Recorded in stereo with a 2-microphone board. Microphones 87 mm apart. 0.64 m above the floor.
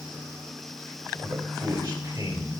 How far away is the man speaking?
About 2 m.